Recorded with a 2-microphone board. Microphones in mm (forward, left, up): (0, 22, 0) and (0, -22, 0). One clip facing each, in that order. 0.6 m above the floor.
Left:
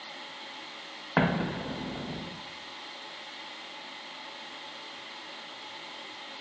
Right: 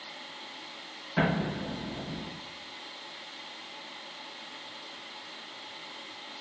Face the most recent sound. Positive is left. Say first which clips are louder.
# left 1 dB
turn(degrees=60)  # may be behind; listen again after turning